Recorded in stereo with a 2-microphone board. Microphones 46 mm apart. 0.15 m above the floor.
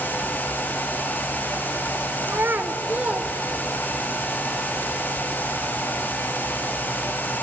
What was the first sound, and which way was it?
A child speaking, 55° right (ahead or behind).